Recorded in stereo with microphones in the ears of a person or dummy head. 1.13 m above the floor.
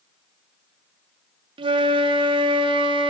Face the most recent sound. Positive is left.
turn(degrees=-25)  # may be behind; listen again after turning